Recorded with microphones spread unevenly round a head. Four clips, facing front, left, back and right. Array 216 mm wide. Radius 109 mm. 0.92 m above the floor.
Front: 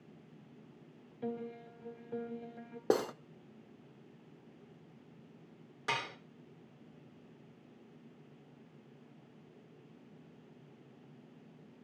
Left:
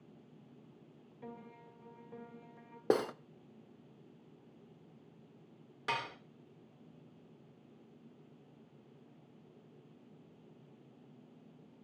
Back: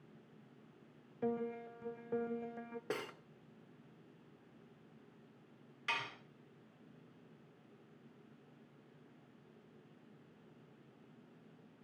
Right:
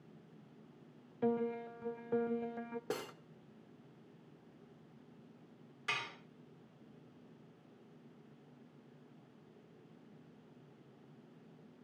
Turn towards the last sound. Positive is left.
turn(degrees=40)